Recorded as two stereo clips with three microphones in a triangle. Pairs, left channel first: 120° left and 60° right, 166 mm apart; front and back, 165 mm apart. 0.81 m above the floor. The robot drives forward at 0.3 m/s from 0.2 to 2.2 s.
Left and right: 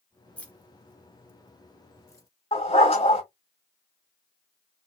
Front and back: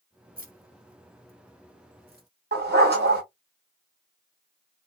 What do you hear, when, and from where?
0.4 s keys jangling: 160° right, 0.7 m; by 2.3 s 165° right, 1.3 m
2.5 s a dog barking: 175° left, 1.8 m